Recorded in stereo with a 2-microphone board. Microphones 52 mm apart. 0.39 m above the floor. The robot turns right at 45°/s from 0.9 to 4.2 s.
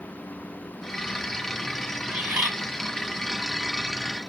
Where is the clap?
No clap in this recording.